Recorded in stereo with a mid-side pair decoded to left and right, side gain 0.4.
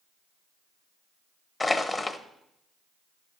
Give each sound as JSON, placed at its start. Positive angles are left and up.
{"t": 1.6, "sound": "crushing", "azimuth_deg": 25, "distance_m": 1.2}